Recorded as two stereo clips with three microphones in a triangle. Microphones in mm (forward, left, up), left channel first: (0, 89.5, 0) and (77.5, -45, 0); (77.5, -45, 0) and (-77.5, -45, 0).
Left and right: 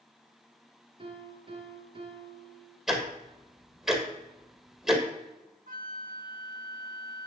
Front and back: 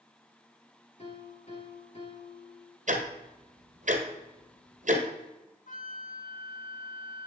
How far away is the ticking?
About 1.6 m.